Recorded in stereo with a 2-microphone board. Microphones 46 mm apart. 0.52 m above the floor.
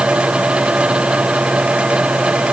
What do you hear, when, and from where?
Only background noise.